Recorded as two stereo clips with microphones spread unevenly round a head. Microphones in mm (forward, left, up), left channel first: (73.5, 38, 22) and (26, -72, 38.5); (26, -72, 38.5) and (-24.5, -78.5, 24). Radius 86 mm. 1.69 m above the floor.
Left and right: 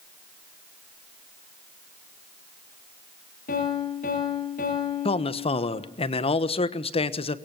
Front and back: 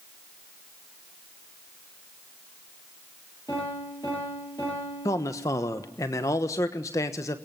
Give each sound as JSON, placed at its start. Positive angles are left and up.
{"t": 3.5, "sound": "a piano", "azimuth_deg": 65, "distance_m": 8.5}
{"t": 5.0, "sound": "a man speaking", "azimuth_deg": 25, "distance_m": 1.2}